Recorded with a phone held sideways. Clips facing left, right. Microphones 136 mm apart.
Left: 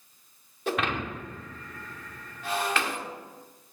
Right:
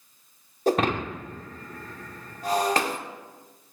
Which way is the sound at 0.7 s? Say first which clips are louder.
Right 6 dB; 40° right (ahead or behind).